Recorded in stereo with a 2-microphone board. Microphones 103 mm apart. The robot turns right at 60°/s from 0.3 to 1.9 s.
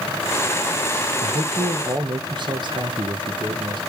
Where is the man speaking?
90° right, 1.4 m; by 3.8 s 50° right, 1.4 m.